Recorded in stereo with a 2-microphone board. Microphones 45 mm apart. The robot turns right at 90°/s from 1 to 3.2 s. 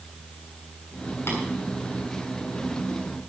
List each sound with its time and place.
1.3 s tapping: 60° left (ahead or behind), 7 m; by 1.4 s 70° left (ahead or behind), 7 m